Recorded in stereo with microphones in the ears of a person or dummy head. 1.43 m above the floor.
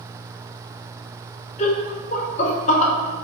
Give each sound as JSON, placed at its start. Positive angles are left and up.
{"t": 1.6, "sound": "laughter", "side_deg": 40, "distance_m": 0.6}